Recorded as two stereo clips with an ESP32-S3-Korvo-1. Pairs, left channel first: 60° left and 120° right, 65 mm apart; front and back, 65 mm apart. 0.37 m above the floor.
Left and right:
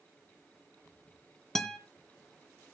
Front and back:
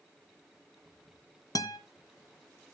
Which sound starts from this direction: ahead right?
A guitar, at 1.6 s.